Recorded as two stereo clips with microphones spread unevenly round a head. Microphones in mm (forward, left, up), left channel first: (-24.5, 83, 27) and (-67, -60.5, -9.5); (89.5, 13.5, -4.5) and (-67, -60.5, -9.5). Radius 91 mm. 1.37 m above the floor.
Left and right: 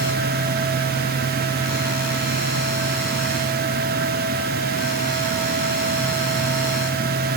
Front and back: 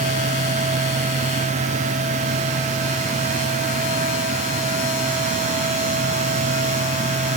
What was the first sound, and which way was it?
Only background noise.